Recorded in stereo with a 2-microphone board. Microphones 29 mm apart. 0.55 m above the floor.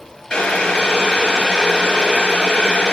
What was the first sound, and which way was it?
Boiling, 35° left (ahead or behind).